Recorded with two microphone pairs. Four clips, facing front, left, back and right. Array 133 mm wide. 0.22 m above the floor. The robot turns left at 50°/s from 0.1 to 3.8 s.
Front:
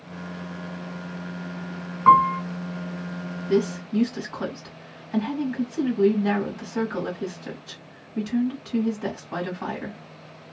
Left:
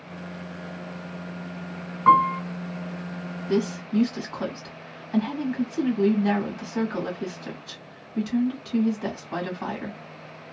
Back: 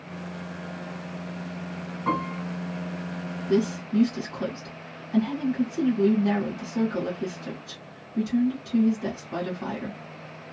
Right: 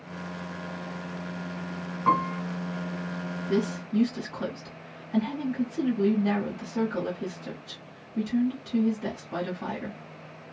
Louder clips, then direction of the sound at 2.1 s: Left 7 dB, front 13 dB; 30° left.